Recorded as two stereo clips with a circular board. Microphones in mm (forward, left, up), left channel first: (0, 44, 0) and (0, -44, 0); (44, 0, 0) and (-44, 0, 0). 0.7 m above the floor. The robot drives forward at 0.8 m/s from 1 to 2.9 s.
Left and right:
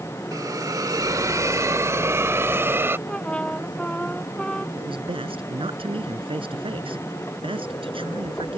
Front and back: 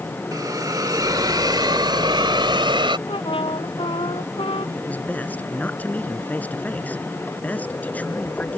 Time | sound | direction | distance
0.3 | a hiss | 135° right | ?
3.1 | a trumpet | 10° left | ?
4.8 | a man speaking | 75° right | ?